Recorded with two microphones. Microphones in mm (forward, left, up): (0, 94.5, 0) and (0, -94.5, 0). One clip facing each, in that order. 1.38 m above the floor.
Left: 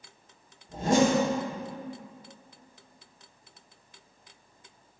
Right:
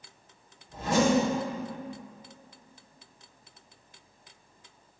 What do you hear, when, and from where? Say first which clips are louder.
0.7 s a zipper: left 2 dB; 45° left (ahead or behind), 3 m